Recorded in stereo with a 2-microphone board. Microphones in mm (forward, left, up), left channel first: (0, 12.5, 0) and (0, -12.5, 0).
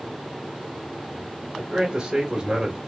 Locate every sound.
1.6 s a man speaking: 25° right (ahead or behind), 1.7 m; by 2.8 s 20° right (ahead or behind), 1.3 m